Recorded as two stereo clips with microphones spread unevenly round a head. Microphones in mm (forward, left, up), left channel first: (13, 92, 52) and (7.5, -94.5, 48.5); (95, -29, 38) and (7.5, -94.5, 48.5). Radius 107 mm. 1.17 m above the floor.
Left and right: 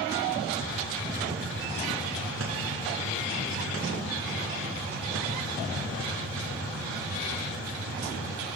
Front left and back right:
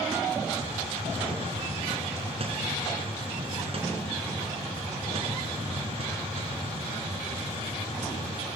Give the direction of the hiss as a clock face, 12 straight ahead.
4 o'clock.